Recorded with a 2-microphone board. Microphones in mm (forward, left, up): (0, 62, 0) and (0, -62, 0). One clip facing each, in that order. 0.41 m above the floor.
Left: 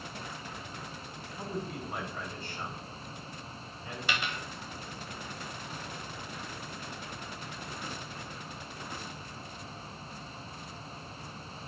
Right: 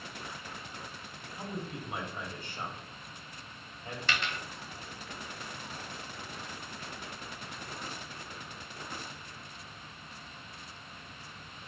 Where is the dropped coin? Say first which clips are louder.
Left 1 dB; 10° left (ahead or behind), 1.1 m.